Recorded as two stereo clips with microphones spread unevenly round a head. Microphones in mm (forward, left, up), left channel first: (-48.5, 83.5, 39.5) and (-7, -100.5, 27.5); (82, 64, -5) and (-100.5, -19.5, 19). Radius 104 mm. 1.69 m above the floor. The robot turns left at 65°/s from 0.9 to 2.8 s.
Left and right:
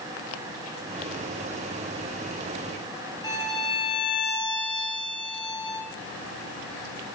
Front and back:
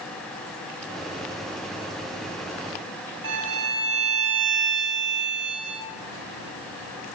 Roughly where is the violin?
Behind.